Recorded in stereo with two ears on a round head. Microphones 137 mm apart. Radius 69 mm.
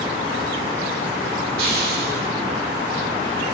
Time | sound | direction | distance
1.6 | a hiss | 65° right (ahead or behind) | 4 m